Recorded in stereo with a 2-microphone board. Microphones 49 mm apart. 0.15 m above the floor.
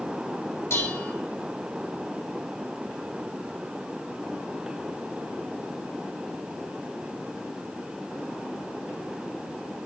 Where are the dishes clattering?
65° left (ahead or behind), 1.8 m.